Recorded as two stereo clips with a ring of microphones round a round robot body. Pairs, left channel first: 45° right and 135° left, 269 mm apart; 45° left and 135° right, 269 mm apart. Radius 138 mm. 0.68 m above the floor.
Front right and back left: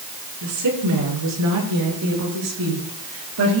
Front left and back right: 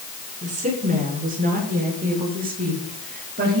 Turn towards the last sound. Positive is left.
turn(degrees=170)